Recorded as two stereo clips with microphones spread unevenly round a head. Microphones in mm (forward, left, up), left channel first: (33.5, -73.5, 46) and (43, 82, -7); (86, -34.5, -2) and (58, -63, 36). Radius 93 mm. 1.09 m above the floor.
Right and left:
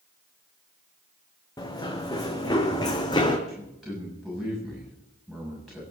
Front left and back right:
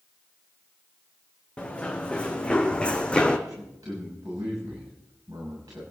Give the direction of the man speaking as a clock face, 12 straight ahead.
6 o'clock.